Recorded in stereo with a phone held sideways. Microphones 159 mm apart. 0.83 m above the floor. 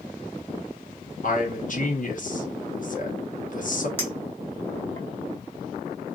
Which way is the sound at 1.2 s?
55° left (ahead or behind).